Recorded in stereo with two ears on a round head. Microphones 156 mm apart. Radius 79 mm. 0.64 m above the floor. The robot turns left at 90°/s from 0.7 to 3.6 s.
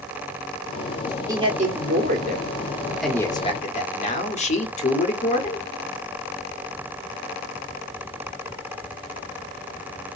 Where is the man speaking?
25° right, 1.4 m; by 5.6 s 130° left, 1.4 m.